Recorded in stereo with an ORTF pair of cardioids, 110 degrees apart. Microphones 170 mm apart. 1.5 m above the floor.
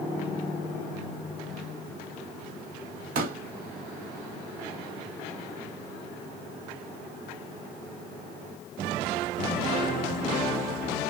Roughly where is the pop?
Ahead right.